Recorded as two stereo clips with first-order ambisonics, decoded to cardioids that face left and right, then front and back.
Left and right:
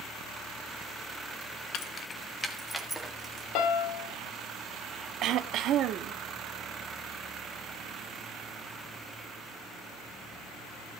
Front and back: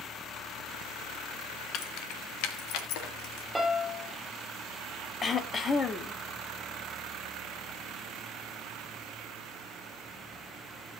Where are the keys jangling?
45° left, 1.0 m; by 3.5 s 10° right, 1.9 m.